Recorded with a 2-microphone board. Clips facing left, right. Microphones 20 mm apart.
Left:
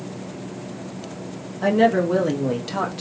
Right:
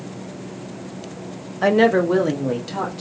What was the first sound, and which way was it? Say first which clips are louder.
A woman speaking: right 2 dB; 40° right (ahead or behind).